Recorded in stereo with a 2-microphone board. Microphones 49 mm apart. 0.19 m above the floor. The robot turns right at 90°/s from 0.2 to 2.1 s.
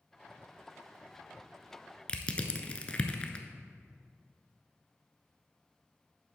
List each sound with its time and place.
2.1 s crushing: 25° left (ahead or behind), 0.6 m